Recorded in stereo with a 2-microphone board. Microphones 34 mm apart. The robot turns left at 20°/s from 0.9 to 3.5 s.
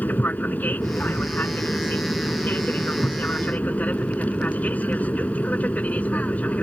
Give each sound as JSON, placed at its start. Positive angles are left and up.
{"t": 0.0, "sound": "an aircraft", "side_deg": 60}